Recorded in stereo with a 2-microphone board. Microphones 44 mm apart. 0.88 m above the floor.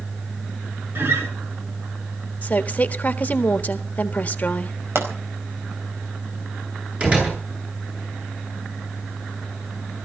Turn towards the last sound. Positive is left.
turn(degrees=-30)  # may be behind; listen again after turning